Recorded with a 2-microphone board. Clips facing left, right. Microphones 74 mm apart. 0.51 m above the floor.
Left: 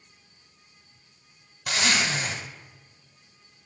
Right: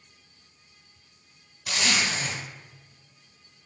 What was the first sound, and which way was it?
A zipper, 65° left (ahead or behind).